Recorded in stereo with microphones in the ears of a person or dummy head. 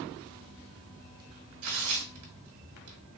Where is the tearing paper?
80° right, 1.8 m.